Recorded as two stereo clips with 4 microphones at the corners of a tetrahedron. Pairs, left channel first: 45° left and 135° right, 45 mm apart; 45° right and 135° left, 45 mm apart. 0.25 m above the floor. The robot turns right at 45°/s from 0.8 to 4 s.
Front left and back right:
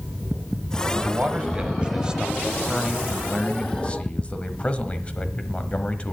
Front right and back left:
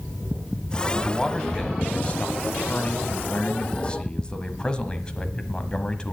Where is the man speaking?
130° right, 1.1 m; by 6.1 s 5° left, 1.1 m.